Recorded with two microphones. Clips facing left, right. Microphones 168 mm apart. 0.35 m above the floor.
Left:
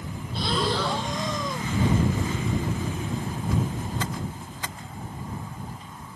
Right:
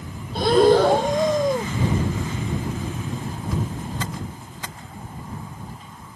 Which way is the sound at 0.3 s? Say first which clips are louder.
Right 12 dB; 55° right (ahead or behind).